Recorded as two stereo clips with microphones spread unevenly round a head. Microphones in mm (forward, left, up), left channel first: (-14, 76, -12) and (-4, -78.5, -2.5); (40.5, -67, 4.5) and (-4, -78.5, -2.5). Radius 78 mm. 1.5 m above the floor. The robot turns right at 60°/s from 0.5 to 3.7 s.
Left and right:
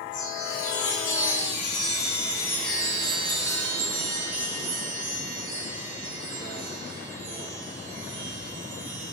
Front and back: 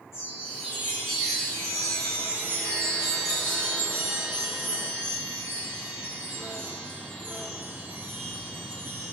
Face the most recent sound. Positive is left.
turn(degrees=-120)